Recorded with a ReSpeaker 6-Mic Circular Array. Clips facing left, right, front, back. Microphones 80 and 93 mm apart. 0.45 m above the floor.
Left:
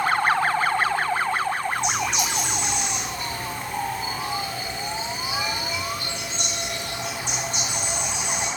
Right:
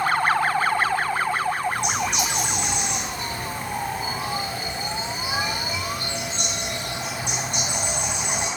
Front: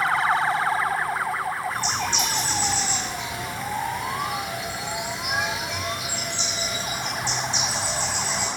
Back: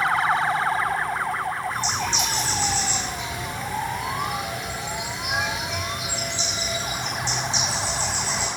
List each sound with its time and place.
1.7 s a bird: 85° right, 5.5 m